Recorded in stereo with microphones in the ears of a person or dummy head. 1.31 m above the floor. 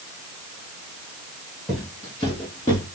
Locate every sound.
1.7 s footsteps: centre (ahead or behind), 1.4 m; by 2.9 s 15° left (ahead or behind), 1.4 m